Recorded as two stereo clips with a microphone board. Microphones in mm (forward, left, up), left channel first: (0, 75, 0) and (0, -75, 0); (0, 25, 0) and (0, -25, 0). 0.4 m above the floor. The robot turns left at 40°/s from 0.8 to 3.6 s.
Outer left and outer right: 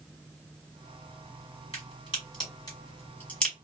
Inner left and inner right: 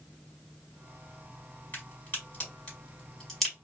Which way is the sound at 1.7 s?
40° left (ahead or behind).